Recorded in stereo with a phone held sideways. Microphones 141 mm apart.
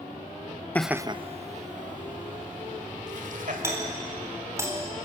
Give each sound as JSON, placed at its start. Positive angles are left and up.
{"t": 0.8, "sound": "laughter", "side_deg": 10, "distance_m": 0.5}
{"t": 3.6, "sound": "a doorbell", "side_deg": -20, "distance_m": 4.0}